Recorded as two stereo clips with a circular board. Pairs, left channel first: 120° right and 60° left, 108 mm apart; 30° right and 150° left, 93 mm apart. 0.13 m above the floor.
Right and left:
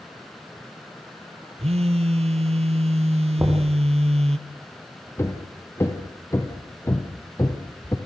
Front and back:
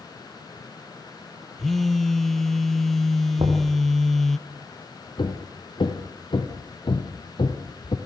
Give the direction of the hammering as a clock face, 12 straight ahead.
2 o'clock.